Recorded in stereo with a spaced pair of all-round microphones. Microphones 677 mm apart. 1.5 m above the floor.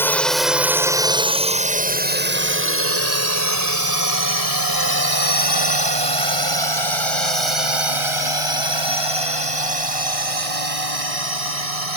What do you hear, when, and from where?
0.0 s a drone: 5° left (ahead or behind); by 12.0 s 55° right (ahead or behind)